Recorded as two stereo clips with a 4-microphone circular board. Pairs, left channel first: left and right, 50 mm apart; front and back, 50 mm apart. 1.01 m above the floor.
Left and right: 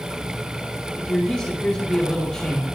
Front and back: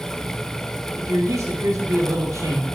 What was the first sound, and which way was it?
A man speaking, 160° left.